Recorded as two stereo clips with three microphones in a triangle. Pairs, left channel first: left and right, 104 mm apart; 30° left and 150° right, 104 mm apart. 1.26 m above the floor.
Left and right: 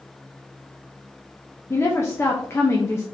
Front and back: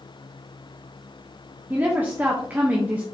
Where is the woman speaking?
145° left, 0.7 m.